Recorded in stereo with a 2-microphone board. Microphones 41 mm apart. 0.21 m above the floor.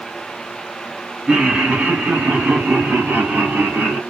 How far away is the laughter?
About 1.4 m.